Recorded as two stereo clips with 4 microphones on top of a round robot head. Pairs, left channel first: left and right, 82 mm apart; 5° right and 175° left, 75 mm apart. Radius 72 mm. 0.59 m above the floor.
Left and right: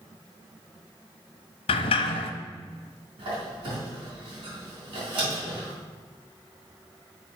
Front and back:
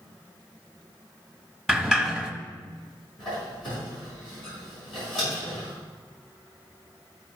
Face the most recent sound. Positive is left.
turn(degrees=-90)